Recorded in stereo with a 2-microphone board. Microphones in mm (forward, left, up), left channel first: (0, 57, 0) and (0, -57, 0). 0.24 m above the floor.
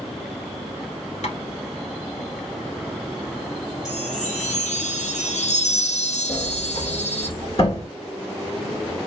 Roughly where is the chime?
Left.